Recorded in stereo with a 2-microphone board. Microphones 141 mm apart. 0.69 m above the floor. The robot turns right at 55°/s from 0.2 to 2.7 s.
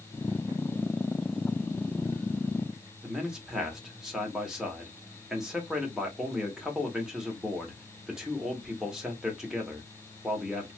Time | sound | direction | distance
3.0 | a man speaking | 5° right (ahead or behind) | 1.2 m